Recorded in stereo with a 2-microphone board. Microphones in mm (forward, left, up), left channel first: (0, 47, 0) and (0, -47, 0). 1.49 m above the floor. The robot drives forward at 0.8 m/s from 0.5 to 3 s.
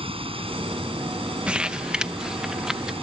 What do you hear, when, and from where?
0.0 s running water: 80° right; by 3.0 s 90° right
1.5 s crumpling: 10° right (ahead or behind); by 2.9 s 5° right (ahead or behind)